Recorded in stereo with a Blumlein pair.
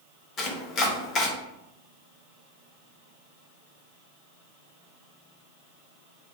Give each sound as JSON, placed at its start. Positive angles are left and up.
{"t": 0.4, "sound": "chopping", "azimuth_deg": 30, "distance_m": 0.7}